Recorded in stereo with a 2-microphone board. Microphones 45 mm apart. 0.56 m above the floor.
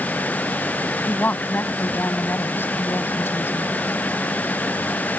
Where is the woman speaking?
45° left (ahead or behind); by 3.7 s 60° left (ahead or behind).